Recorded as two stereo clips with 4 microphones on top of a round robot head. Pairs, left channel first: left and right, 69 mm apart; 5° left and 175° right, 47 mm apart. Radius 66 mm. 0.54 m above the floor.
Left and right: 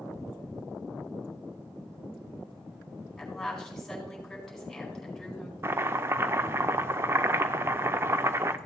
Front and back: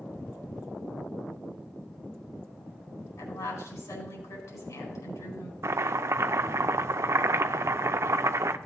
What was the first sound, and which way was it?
A woman speaking, 5° left.